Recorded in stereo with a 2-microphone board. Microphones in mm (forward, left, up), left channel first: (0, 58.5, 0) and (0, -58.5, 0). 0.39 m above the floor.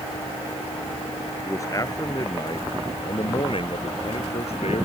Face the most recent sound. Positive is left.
turn(degrees=65)  # may be behind; listen again after turning